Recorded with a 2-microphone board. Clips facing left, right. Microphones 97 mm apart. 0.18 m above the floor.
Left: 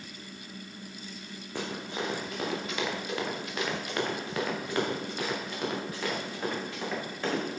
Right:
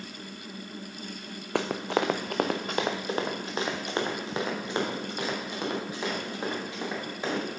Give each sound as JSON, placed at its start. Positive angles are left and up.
{"t": 1.6, "sound": "running footsteps", "side_deg": -70, "distance_m": 0.9}